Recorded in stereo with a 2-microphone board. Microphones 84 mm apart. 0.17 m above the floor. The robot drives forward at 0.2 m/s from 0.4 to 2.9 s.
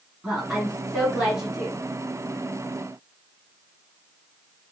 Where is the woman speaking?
5° right (ahead or behind), 1.9 m; by 1.8 s 10° right (ahead or behind), 1.8 m.